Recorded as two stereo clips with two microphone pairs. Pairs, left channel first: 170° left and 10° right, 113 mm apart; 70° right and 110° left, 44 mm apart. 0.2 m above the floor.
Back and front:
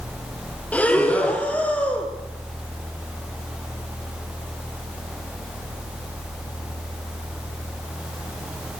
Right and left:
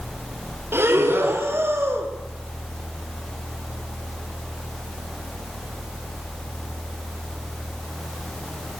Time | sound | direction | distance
0.7 | breathing | 95° left | 4 m